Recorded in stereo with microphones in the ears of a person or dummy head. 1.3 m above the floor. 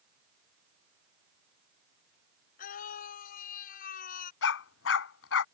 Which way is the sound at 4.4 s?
75° left (ahead or behind).